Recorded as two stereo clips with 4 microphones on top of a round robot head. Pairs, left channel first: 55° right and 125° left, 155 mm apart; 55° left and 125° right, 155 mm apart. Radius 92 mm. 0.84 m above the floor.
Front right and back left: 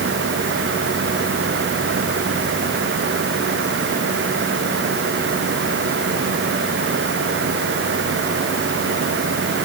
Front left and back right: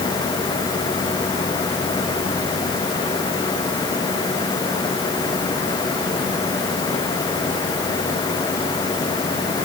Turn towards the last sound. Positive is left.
No sound to turn to.